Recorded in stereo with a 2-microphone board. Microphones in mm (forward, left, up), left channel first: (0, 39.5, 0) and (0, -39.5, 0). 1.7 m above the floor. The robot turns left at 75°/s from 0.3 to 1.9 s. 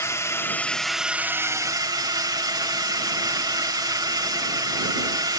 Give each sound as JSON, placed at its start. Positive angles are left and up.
{"t": 0.0, "sound": "a drone", "azimuth_deg": 45}